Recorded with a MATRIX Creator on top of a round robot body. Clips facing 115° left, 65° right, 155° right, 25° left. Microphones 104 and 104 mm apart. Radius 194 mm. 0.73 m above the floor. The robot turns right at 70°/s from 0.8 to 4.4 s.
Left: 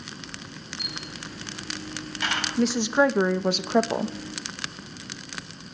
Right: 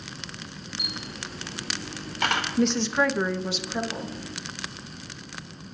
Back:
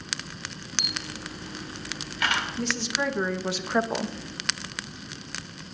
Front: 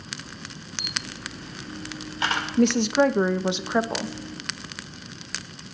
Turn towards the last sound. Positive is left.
turn(degrees=150)